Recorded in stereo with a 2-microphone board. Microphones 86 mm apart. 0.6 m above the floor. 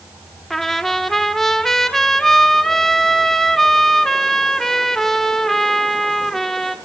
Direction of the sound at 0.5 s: 5° left (ahead or behind).